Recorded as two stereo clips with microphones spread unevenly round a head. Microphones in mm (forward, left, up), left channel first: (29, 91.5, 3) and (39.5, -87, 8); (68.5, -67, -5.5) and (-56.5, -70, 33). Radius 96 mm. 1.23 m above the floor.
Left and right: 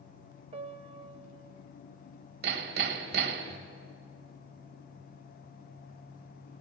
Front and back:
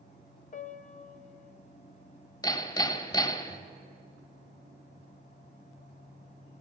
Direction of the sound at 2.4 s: 55° right.